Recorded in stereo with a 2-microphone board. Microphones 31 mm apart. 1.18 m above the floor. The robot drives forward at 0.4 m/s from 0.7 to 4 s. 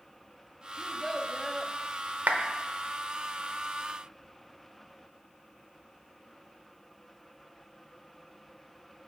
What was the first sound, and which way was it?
A child speaking, 5° left (ahead or behind).